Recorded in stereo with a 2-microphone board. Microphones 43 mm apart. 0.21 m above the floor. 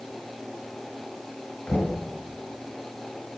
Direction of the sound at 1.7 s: 40° left (ahead or behind).